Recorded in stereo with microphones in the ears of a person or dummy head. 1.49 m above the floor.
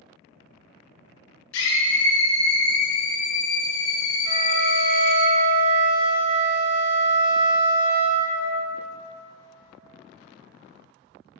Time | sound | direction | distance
1.5 | a scream | 65° left (ahead or behind) | 1.7 m
4.2 | a flute | 25° right (ahead or behind) | 1.5 m